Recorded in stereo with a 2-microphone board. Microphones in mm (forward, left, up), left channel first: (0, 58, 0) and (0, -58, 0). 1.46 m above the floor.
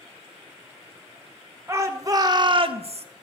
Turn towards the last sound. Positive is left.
turn(degrees=-60)  # may be behind; listen again after turning